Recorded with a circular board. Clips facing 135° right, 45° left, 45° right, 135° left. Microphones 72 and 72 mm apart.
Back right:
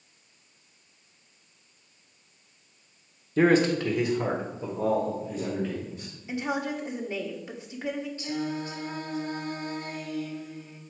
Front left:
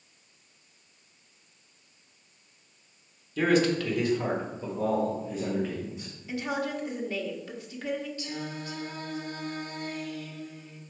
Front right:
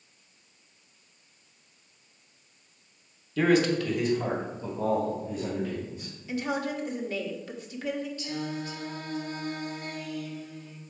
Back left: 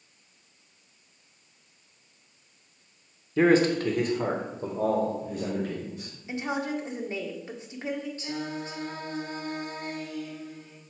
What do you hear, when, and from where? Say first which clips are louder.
3.4 s a man speaking: back right 3 dB, back left 2 dB; 170° right, 0.9 m; by 6.2 s 130° left, 2 m
6.3 s a woman speaking: back right 1 dB, even; 175° left, 1.0 m
8.2 s singing: back right 5 dB, even; 175° left, 1.7 m